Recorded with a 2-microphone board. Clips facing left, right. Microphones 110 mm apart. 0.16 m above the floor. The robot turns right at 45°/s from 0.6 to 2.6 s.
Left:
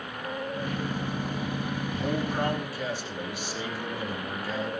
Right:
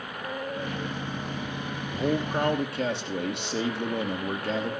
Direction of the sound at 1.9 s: 140° right.